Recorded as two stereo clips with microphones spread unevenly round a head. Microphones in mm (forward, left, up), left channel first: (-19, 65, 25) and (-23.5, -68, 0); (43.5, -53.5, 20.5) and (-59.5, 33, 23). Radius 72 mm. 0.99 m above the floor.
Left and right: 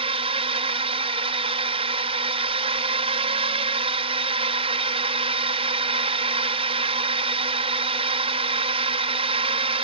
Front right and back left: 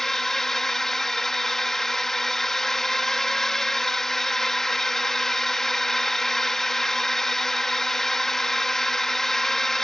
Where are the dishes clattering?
No dishes clattering in this recording.